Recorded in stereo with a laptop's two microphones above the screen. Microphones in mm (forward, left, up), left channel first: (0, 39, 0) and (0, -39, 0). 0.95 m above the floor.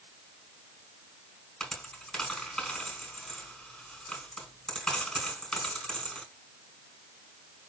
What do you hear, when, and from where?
1.6 s a dropped coin: 5° left (ahead or behind), 4 m